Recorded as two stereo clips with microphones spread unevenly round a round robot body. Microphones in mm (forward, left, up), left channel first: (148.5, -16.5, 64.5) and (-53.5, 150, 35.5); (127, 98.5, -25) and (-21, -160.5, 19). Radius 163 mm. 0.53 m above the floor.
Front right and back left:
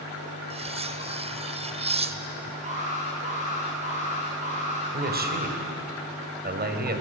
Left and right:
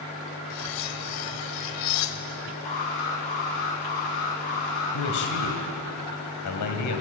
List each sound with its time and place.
0.5 s cutlery clinking: 75° left, 1.5 m
2.6 s an alarm: 80° left, 9.5 m
4.9 s a man speaking: 90° left, 3.5 m